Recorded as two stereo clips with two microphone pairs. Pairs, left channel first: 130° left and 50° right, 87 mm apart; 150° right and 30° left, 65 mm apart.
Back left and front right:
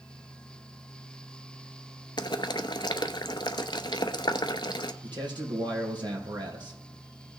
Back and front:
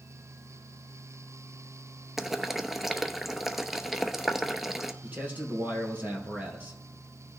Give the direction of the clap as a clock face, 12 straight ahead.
No clap in this recording.